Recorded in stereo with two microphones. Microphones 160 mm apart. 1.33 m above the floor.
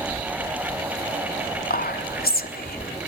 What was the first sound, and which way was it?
Whispering, 65° left (ahead or behind).